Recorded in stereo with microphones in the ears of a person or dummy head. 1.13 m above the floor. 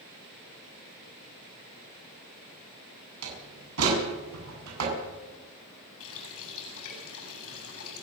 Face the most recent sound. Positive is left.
turn(degrees=75)  # may be behind; listen again after turning